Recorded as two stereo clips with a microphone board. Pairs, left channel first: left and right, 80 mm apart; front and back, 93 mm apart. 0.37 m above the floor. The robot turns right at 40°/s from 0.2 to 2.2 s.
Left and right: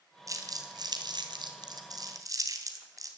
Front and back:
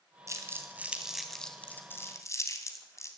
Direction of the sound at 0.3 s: 130° right.